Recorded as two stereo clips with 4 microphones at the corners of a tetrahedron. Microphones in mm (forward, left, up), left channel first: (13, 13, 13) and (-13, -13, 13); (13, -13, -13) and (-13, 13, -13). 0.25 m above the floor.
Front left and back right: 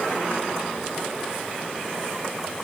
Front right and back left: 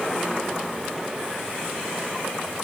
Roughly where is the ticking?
No ticking in this recording.